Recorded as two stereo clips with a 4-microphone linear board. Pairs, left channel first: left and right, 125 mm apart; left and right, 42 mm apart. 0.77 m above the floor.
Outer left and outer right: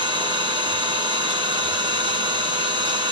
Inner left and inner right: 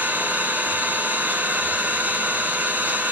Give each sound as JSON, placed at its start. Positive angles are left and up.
{"t": 0.0, "sound": "an engine running", "side_deg": -45, "distance_m": 1.9}